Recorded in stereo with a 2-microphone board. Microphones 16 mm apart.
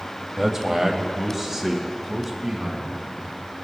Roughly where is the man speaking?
Centre.